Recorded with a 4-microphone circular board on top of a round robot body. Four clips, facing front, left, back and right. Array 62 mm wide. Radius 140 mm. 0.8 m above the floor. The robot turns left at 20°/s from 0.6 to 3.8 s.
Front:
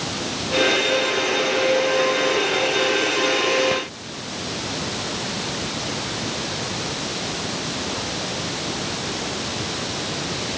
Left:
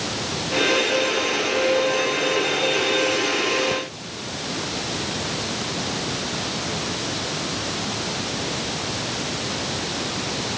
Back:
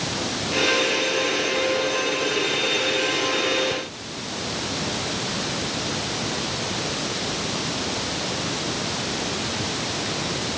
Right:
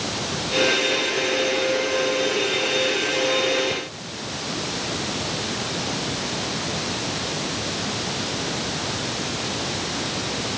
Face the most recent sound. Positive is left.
No sound to turn to.